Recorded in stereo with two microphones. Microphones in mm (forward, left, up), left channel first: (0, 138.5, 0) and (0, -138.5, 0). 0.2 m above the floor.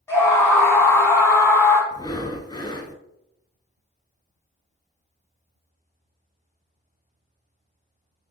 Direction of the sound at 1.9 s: 15° left (ahead or behind).